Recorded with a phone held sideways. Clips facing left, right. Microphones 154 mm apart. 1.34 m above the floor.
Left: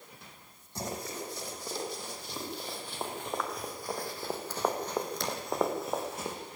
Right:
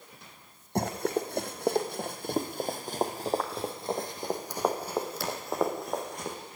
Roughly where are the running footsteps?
Right.